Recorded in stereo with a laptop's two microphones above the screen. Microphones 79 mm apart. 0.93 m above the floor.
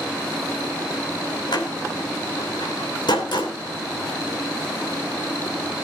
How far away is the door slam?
About 3 m.